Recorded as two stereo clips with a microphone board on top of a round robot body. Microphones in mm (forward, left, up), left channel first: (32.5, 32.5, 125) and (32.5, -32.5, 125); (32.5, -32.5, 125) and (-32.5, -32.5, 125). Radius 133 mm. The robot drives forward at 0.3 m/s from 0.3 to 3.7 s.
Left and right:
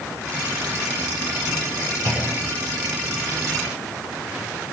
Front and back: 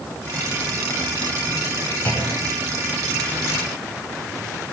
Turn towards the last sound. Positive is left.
turn(degrees=-55)